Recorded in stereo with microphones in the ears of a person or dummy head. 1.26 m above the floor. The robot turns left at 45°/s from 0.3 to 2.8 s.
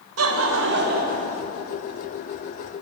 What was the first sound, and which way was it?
Laughter, 95° right.